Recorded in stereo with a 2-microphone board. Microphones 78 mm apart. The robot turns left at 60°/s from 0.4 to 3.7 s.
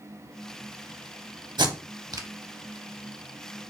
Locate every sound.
1.6 s tape being pulled: 75° right (ahead or behind), 0.5 m; by 2.3 s 50° right (ahead or behind), 0.5 m